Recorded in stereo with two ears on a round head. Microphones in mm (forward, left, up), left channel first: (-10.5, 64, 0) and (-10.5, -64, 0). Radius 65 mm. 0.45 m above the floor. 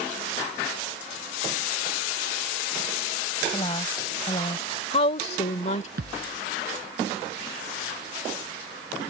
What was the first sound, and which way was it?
A woman speaking, 30° left (ahead or behind).